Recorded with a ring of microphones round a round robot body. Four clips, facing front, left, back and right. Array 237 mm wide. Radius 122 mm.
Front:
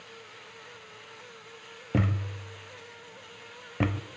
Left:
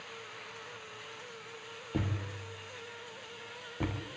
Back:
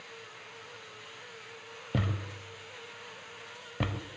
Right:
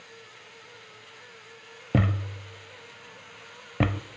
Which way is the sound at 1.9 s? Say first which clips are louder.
Right 9 dB, front 5 dB; 75° right.